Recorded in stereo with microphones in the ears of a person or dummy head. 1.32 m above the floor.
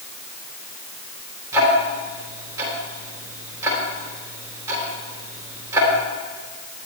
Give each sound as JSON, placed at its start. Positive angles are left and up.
{"t": 1.5, "sound": "ticking", "side_deg": -15, "distance_m": 3.5}